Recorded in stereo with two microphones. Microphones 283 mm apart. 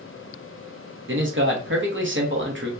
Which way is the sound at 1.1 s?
45° right (ahead or behind).